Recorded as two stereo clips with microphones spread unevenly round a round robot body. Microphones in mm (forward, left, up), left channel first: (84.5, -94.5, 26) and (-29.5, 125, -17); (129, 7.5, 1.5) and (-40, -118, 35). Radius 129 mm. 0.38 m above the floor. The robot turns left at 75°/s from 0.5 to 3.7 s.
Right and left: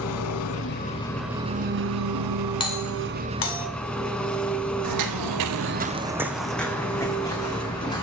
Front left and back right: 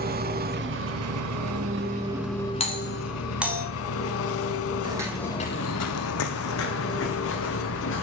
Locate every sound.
0.0 s an engine running: 100° right, 0.9 m; by 8.0 s 20° left, 0.9 m
2.6 s a doorbell: 10° left, 2.5 m; by 3.6 s 65° right, 2.5 m
4.8 s footsteps: 145° left, 1.3 m; by 8.0 s 10° left, 4 m